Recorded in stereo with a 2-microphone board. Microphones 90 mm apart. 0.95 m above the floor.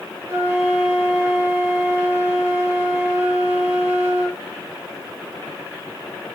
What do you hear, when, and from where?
0.3 s a flute: 25° right (ahead or behind), 0.7 m